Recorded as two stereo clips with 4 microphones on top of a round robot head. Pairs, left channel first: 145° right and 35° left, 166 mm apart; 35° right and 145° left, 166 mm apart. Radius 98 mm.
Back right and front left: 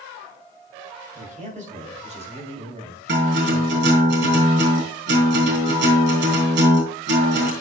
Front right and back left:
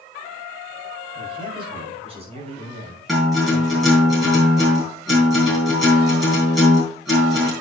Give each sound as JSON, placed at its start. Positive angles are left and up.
{"t": 1.1, "sound": "a man speaking", "azimuth_deg": 80, "distance_m": 6.5}
{"t": 3.1, "sound": "a guitar", "azimuth_deg": 55, "distance_m": 7.5}